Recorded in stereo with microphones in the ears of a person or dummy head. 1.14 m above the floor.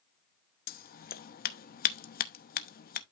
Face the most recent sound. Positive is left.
turn(degrees=45)  # may be behind; listen again after turning